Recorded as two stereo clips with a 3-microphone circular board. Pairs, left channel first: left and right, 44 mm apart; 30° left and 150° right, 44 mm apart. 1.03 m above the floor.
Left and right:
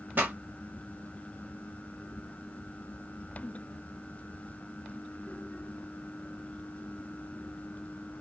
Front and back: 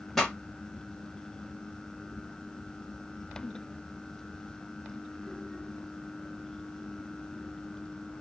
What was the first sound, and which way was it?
A pop, 50° right.